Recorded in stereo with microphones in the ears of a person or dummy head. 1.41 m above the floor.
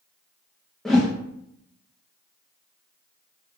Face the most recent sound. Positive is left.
turn(degrees=5)  # may be behind; listen again after turning